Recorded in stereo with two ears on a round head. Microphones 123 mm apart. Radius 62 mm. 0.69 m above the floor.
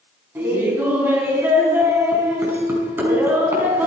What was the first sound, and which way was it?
Laughter, 15° right (ahead or behind).